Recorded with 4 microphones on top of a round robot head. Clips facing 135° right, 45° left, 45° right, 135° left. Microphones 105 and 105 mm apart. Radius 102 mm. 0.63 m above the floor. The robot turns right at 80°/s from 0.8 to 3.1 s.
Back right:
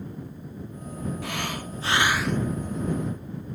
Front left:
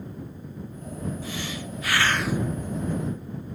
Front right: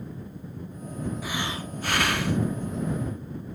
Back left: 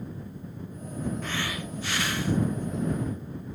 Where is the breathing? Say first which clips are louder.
Back right 2 dB, front right 1 dB; 130° right; by 2.5 s 30° right.